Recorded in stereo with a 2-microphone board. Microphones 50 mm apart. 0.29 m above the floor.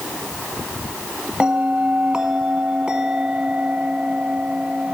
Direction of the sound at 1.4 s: 15° right (ahead or behind).